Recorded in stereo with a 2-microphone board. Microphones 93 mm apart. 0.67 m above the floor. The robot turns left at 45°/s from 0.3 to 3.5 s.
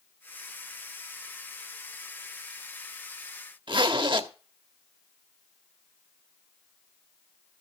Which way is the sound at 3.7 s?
55° right (ahead or behind).